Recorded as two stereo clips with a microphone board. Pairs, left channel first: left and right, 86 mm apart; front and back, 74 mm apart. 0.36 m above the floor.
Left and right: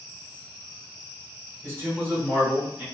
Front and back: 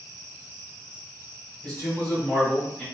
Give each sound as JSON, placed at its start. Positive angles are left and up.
{"t": 1.6, "sound": "a man speaking", "azimuth_deg": -50, "distance_m": 1.7}